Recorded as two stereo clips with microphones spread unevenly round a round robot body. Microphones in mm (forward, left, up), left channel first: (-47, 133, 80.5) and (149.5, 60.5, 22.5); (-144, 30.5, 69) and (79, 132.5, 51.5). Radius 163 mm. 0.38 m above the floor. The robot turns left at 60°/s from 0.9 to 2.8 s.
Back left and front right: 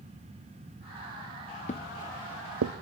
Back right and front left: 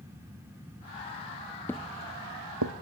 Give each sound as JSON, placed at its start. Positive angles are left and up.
{"t": 1.7, "sound": "footsteps", "azimuth_deg": 130, "distance_m": 0.6}